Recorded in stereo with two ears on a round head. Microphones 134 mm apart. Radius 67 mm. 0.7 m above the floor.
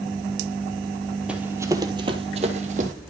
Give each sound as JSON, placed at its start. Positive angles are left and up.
{"t": 1.3, "sound": "running footsteps", "side_deg": -5, "distance_m": 1.2}